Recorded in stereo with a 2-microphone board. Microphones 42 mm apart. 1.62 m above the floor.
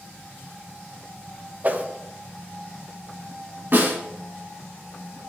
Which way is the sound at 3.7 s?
55° right (ahead or behind).